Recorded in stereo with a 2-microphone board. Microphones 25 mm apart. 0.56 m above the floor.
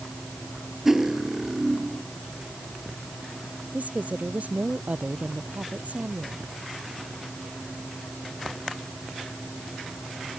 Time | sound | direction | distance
0.8 | cutlery clinking | 10° right (ahead or behind) | ?
3.7 | a woman speaking | 75° right (ahead or behind) | ?